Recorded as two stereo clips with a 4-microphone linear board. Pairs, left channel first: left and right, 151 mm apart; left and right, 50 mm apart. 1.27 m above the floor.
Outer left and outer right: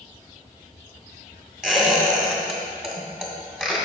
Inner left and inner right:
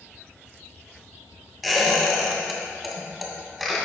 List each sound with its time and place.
1.6 s a squeak: 5° right (ahead or behind), 1.9 m